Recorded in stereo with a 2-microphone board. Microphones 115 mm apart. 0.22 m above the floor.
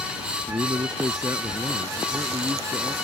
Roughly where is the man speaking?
Right.